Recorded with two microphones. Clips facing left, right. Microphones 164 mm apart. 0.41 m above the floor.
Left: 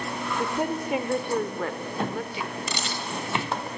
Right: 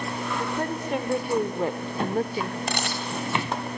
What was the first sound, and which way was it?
A woman speaking, 20° left (ahead or behind).